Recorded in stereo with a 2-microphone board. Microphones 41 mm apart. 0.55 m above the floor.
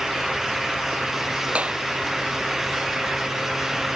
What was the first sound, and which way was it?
A clap, 35° right (ahead or behind).